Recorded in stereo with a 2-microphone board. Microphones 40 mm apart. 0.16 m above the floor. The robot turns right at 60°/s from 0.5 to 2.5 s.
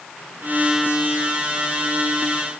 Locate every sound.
Only background noise.